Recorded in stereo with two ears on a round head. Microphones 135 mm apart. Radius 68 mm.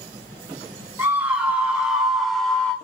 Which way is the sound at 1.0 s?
10° right (ahead or behind).